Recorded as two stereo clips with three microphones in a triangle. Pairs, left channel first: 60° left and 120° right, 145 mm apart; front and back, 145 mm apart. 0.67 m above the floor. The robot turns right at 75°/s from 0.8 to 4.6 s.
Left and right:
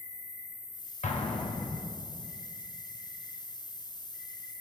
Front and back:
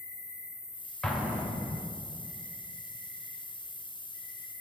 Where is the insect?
70° left, 2.0 m; by 4.6 s 5° right, 2.0 m.